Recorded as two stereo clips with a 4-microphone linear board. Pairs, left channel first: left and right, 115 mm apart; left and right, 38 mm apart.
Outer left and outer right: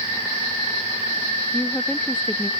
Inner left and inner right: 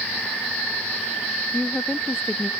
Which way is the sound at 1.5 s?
5° left (ahead or behind).